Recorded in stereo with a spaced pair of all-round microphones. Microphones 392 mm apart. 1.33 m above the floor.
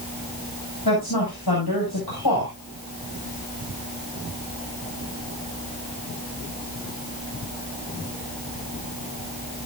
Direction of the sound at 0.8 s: 75° left (ahead or behind).